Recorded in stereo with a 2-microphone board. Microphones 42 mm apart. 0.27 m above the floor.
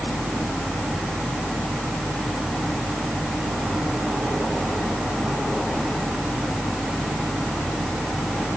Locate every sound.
Only background noise.